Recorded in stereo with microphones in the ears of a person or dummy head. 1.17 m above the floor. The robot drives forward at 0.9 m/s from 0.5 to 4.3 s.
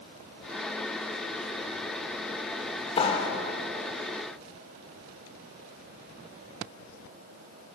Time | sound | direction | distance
3.0 | a clap | 25° left (ahead or behind) | 3.5 m